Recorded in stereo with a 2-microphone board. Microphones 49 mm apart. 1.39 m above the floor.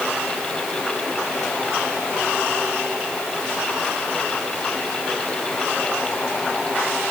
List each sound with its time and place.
Only background noise.